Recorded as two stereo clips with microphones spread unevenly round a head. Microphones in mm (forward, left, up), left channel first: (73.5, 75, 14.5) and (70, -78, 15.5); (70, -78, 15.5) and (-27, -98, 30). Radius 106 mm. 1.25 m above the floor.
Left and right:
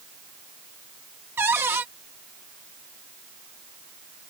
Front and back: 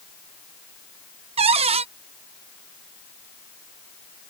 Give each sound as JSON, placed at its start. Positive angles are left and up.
{"t": 1.4, "sound": "a cupboard door", "azimuth_deg": -170}